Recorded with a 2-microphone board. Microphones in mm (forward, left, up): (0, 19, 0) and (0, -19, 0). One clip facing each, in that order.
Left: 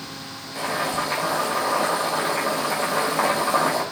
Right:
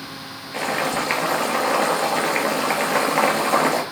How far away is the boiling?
About 3.5 m.